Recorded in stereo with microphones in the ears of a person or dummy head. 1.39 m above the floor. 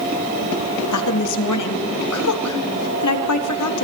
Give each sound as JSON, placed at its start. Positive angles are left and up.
{"t": 0.9, "sound": "a woman speaking", "side_deg": 80, "distance_m": 1.9}